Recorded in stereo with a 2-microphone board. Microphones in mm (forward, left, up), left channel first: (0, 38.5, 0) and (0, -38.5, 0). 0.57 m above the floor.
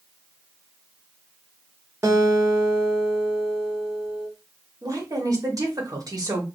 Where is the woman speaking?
50° right (ahead or behind), 1.2 m.